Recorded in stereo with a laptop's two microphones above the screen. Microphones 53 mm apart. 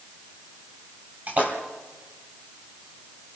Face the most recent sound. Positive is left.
turn(degrees=-35)  # may be behind; listen again after turning